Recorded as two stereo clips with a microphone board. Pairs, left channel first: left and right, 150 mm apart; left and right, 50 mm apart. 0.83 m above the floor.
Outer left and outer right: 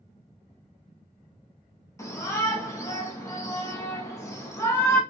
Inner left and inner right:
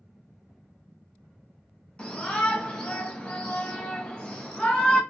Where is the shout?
20° left (ahead or behind), 1.1 m.